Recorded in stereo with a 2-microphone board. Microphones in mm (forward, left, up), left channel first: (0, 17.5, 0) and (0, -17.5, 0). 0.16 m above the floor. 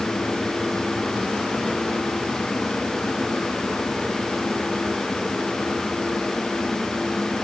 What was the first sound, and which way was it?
Only background noise.